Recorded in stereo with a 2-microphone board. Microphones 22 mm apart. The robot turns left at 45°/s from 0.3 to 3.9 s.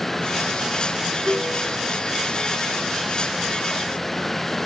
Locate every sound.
1.2 s a piano: 45° right (ahead or behind), 3.5 m; by 1.8 s 65° right (ahead or behind), 3.5 m